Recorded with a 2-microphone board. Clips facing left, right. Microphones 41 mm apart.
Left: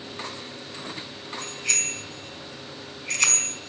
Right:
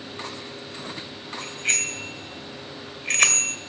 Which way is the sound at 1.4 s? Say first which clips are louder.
Right 3 dB; 40° right (ahead or behind).